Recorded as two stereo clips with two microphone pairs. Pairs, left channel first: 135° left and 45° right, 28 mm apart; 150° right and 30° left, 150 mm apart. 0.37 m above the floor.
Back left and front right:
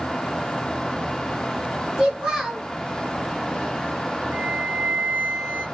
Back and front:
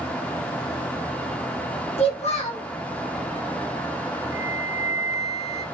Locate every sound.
2.0 s a child speaking: 110° right, 1.6 m
4.3 s a flute: 35° right, 1.3 m